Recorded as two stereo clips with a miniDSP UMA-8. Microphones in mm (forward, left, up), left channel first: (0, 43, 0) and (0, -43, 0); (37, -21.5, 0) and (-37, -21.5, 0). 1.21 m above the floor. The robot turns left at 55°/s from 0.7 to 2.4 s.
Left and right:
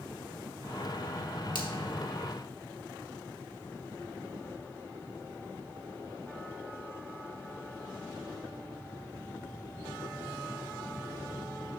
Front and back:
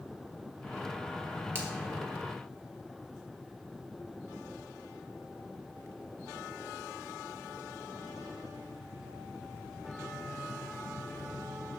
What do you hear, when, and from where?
1.6 s a finger snap: 120° left, 1.6 m; by 1.7 s 115° left, 1.6 m